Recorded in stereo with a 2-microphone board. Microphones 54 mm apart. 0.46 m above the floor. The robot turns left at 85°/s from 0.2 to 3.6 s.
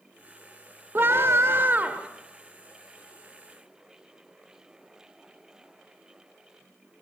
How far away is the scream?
About 1.2 m.